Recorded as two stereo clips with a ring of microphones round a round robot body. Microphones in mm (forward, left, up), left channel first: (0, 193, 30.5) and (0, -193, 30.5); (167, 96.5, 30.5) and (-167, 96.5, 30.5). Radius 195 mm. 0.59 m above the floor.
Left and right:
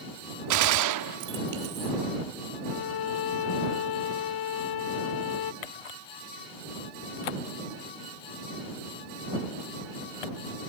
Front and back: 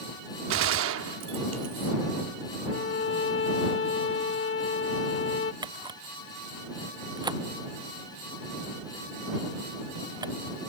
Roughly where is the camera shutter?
Left.